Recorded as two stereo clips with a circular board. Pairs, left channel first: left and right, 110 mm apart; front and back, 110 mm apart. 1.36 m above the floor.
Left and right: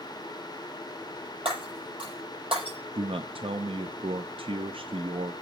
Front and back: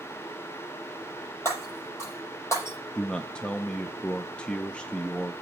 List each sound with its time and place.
1.4 s breaking glass: 65° right, 7 m
3.0 s a man speaking: 80° right, 0.5 m